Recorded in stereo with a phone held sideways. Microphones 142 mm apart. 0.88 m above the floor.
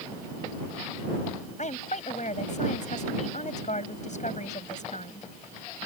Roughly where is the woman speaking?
Left.